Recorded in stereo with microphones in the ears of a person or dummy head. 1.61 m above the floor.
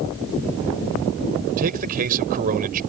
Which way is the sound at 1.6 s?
45° right (ahead or behind).